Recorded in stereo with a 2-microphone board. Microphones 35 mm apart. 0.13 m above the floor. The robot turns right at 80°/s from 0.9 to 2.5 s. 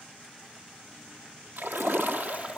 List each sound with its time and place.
1.6 s a splash: 105° right, 1.7 m; by 2.6 s 30° right, 1.7 m